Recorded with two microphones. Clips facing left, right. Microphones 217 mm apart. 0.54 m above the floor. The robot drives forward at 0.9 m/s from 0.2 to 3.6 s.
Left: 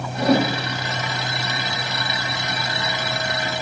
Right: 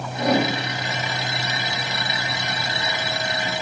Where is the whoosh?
30° left (ahead or behind), 4 m; by 0.5 s 25° left (ahead or behind), 4.5 m.